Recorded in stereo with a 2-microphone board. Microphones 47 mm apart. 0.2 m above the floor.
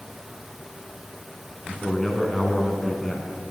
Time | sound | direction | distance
1.6 | a man speaking | 10° left (ahead or behind) | 1.8 m